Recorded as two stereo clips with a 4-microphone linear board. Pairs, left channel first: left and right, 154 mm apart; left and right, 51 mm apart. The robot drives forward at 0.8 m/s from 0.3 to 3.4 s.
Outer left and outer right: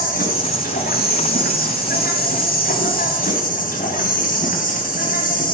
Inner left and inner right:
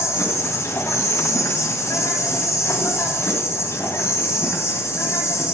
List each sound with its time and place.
0.0 s an insect: 70° left (ahead or behind), 3 m; by 5.5 s 65° left (ahead or behind), 3 m